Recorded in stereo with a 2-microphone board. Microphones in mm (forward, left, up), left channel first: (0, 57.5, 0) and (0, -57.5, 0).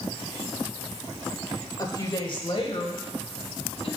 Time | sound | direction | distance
1.8 | a woman speaking | 30° left (ahead or behind) | 1.0 m